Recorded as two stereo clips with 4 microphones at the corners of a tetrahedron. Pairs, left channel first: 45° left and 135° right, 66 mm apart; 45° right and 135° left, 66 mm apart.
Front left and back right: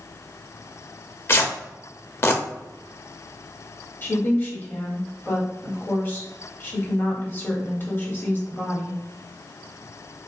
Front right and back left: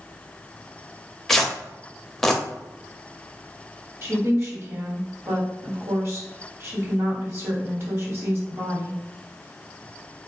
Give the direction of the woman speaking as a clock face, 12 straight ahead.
9 o'clock.